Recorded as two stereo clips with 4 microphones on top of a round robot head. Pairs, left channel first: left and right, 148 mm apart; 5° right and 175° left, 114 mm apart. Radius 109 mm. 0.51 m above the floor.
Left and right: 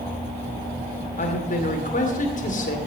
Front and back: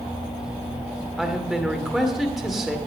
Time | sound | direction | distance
1.2 | a man speaking | 90° left | 2.5 m